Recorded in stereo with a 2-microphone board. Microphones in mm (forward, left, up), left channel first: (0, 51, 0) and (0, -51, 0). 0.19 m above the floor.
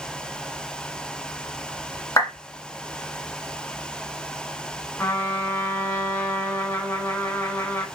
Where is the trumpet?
25° left (ahead or behind), 0.7 m.